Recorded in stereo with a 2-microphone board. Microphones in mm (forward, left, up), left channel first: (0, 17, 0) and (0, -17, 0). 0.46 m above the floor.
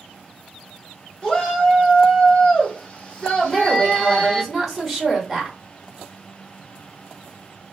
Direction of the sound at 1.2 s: 15° left (ahead or behind).